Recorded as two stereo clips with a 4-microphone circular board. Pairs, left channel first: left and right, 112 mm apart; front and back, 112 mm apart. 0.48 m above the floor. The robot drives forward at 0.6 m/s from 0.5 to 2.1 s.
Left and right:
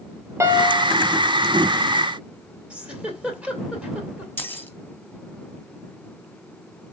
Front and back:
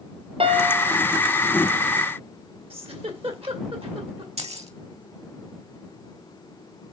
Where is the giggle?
170° right, 2.5 m.